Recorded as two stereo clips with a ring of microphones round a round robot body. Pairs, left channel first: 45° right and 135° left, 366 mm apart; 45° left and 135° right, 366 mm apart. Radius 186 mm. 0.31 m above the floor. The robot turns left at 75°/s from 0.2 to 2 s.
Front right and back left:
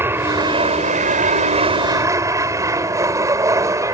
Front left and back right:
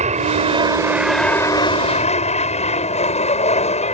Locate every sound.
0.0 s an aircraft: 155° right; by 4.0 s 70° left